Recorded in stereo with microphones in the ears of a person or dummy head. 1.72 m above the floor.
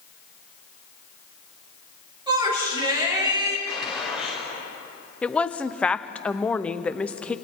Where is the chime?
No chime in this recording.